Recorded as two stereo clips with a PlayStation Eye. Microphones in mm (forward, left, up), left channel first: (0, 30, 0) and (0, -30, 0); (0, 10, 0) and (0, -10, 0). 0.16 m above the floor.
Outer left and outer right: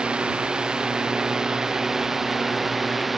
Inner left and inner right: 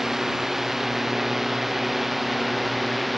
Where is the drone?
15° right (ahead or behind); by 3.2 s centre (ahead or behind).